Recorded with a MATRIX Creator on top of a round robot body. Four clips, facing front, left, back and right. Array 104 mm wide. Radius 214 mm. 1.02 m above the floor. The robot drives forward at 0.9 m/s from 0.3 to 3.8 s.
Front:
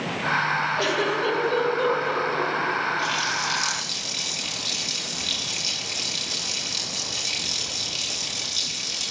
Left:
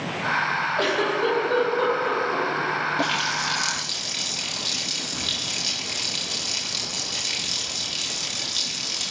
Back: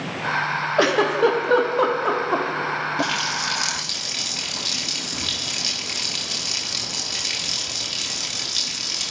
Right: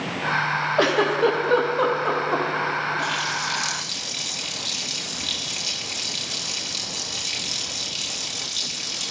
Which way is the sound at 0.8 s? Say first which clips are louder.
Right 5 dB, back 6 dB; 150° right.